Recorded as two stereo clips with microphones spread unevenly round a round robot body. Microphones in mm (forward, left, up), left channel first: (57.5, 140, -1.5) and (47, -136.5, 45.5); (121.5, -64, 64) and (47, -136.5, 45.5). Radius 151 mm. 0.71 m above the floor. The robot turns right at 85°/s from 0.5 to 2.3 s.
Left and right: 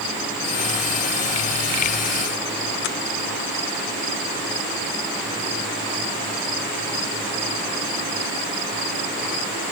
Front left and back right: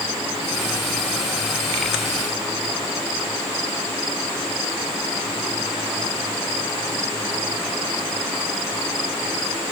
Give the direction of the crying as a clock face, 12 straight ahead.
I don't hear crying.